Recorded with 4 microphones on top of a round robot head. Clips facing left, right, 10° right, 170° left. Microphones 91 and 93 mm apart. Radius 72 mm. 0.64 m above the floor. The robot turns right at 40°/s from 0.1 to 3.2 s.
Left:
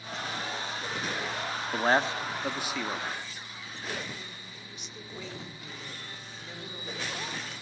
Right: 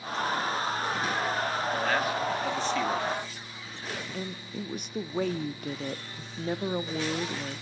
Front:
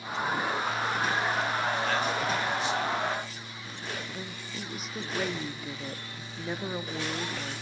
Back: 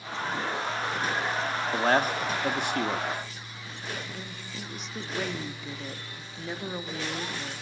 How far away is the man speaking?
About 1.7 m.